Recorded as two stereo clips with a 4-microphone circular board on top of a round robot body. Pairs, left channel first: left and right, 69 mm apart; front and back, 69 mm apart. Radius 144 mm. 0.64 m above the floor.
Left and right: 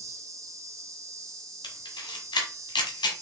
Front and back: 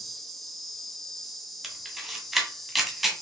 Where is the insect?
85° right, 1.5 m.